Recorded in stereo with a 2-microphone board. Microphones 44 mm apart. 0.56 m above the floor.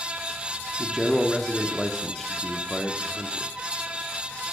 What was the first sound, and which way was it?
A man speaking, 5° left (ahead or behind).